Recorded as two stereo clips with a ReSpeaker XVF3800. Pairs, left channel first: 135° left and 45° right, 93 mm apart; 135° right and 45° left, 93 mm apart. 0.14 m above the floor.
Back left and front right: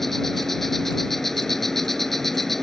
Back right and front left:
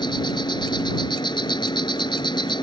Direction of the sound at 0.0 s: 140° right.